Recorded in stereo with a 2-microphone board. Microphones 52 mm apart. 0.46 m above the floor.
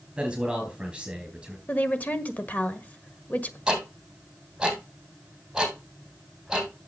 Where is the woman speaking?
30° left (ahead or behind), 1.5 m.